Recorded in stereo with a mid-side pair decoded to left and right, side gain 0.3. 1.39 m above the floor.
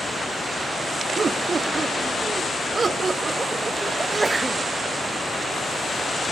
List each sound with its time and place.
1.2 s laughter: 60° right, 2.5 m; by 3.9 s 45° right, 5.5 m
4.0 s a sneeze: 30° right, 1.5 m